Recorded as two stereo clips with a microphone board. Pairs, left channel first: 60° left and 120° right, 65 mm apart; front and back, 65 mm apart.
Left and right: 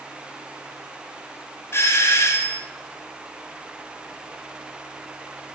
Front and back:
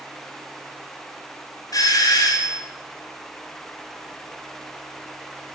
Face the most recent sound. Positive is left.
turn(degrees=15)